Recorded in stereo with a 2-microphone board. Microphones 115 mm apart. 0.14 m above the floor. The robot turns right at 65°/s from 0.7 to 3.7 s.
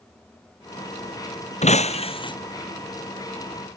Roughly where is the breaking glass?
Left.